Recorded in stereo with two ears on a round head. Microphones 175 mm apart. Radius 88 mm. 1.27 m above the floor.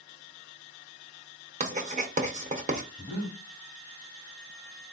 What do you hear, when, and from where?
1.6 s writing: 40° right (ahead or behind), 1.0 m
3.0 s breathing: 10° right (ahead or behind), 1.3 m